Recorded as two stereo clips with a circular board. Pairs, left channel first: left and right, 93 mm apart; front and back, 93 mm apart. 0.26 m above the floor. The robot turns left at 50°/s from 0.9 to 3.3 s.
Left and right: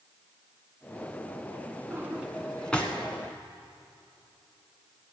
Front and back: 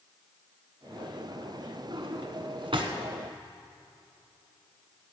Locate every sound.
1.9 s a drawer: 150° right, 1.3 m; by 2.9 s 160° left, 1.3 m